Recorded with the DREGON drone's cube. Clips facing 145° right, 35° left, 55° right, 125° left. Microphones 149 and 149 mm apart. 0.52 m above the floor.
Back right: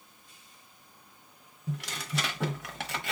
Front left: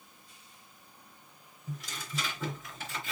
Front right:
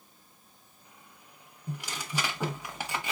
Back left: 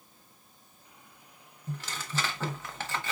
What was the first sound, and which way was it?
Tearing paper, 135° right.